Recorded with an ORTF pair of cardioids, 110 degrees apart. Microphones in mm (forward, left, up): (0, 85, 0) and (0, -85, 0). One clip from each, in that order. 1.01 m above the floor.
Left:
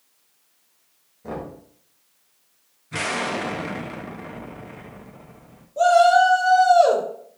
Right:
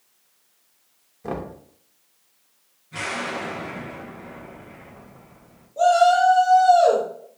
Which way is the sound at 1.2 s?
30° right.